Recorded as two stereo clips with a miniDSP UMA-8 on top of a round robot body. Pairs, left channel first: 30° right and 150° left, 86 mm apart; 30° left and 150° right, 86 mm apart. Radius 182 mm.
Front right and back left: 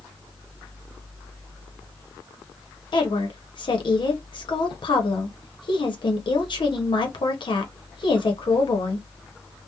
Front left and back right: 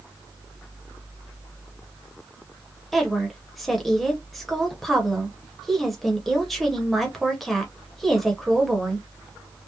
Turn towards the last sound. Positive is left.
turn(degrees=-60)